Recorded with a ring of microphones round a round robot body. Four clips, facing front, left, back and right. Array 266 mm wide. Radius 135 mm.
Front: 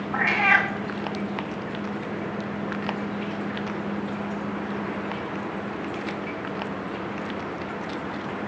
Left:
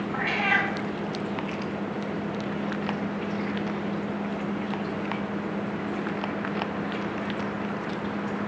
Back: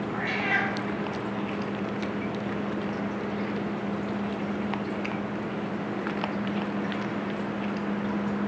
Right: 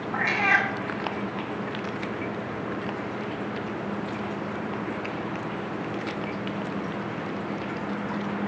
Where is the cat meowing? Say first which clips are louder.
Right 3 dB, front 9 dB; 15° right, 0.5 m.